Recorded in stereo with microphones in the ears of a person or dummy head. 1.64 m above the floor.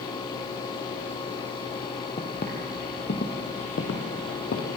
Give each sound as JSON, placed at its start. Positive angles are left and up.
{"t": 2.2, "sound": "footsteps", "side_deg": 30, "distance_m": 2.0}